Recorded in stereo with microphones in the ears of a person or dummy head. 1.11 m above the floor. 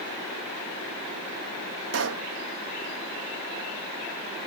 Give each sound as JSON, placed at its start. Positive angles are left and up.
{"t": 1.9, "sound": "a pop", "side_deg": -65}